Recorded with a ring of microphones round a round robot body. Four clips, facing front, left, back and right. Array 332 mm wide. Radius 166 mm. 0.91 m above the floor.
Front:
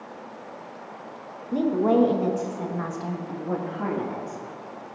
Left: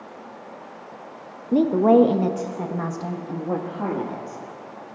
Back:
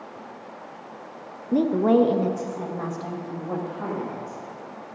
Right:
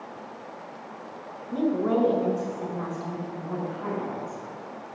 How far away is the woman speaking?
About 0.8 m.